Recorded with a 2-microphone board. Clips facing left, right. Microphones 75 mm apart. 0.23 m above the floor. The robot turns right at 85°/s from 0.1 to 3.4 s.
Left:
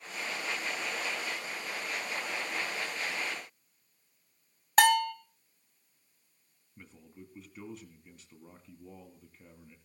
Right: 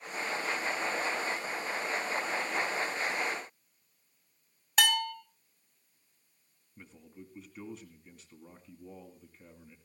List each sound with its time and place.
4.8 s a bell: 40° left (ahead or behind), 1.2 m
6.8 s a man speaking: centre (ahead or behind), 2.0 m